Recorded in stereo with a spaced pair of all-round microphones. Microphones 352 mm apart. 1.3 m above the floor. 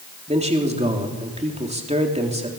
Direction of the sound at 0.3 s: 20° right (ahead or behind).